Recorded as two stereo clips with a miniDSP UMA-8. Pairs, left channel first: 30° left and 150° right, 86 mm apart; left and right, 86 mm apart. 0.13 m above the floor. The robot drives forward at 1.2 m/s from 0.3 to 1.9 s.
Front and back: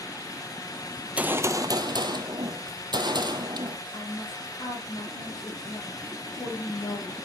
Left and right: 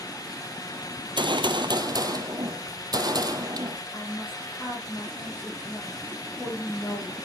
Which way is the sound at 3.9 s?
25° left.